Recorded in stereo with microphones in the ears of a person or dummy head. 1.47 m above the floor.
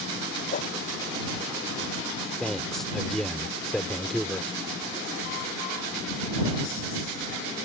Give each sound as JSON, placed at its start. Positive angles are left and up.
{"t": 0.5, "sound": "a whoosh", "side_deg": 45}
{"t": 2.4, "sound": "a man speaking", "side_deg": 5}